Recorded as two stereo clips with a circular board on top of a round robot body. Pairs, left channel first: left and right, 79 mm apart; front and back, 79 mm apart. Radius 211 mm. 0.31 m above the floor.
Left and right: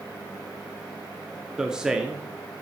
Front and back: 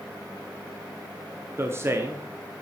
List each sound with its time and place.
1.6 s a man speaking: 165° right, 1.1 m